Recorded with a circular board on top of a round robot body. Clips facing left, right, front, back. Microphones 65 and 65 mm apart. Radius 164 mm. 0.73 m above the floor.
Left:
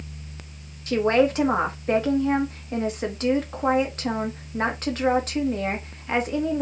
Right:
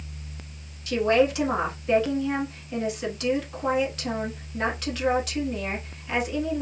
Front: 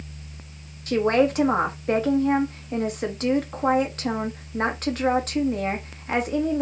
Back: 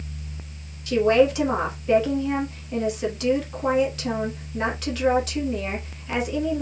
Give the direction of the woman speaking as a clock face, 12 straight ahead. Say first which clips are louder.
Left 1 dB, back 2 dB; 11 o'clock.